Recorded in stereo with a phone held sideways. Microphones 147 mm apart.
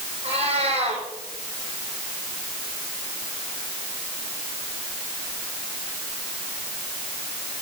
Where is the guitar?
I don't hear a guitar.